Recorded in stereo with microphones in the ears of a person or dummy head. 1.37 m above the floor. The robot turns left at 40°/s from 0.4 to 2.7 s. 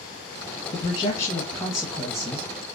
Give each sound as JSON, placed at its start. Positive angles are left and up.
{"t": 0.7, "sound": "a man speaking", "azimuth_deg": 45, "distance_m": 1.0}